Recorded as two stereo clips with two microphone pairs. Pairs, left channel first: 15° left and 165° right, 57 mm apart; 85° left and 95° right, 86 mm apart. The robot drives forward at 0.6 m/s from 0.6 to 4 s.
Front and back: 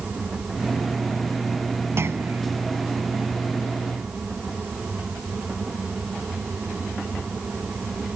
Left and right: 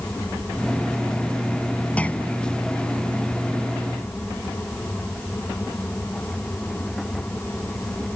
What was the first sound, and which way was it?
A clunk, 155° left.